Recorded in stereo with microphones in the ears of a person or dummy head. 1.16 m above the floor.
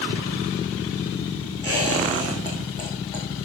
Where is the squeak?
20° left (ahead or behind), 4.5 m.